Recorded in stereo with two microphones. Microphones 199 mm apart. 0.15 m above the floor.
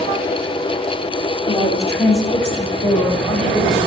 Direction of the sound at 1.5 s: 25° left (ahead or behind).